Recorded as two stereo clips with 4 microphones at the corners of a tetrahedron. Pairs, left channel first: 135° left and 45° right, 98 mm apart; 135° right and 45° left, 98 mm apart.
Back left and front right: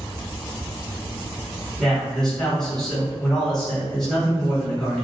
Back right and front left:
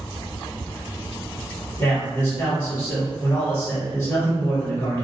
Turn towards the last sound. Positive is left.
turn(degrees=-150)